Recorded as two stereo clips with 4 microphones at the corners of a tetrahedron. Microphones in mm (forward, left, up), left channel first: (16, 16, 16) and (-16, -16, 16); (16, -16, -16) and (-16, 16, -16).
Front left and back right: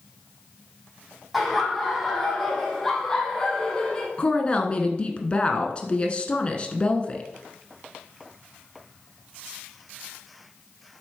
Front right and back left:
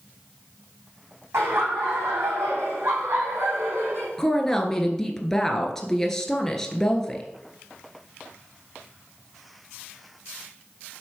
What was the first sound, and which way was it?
Laughter, 130° left.